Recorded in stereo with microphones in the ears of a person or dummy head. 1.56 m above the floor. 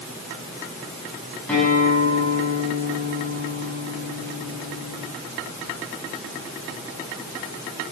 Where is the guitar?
5° left (ahead or behind), 7 m.